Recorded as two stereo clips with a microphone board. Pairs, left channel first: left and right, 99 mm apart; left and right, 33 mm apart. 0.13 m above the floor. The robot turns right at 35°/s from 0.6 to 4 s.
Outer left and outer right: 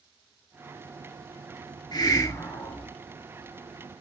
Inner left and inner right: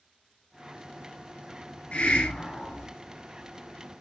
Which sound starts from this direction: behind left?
A hiss, at 1.9 s.